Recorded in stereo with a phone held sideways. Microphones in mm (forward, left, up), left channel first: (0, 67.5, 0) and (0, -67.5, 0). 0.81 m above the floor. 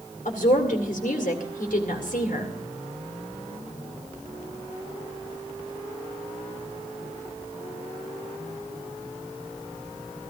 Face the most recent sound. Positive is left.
turn(degrees=75)  # may be behind; listen again after turning